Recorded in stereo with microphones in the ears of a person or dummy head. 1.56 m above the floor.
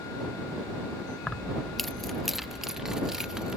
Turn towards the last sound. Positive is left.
turn(degrees=-5)  # may be behind; listen again after turning